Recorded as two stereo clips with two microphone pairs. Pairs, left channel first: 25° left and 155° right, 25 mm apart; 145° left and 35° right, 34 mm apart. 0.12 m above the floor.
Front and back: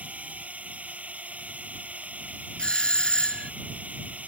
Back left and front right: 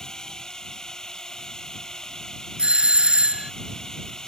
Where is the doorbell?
10° left.